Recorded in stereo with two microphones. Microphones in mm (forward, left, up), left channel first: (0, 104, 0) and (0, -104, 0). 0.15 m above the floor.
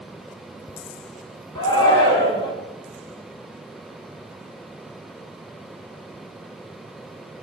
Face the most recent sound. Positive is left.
turn(degrees=20)  # may be behind; listen again after turning